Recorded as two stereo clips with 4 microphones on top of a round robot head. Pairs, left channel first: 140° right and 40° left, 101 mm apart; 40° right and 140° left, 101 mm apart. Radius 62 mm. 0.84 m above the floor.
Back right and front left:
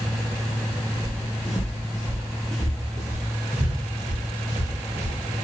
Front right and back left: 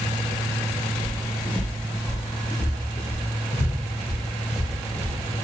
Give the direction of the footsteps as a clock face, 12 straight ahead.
4 o'clock.